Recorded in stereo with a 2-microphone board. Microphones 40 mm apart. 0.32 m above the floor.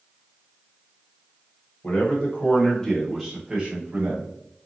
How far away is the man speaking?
About 1.3 m.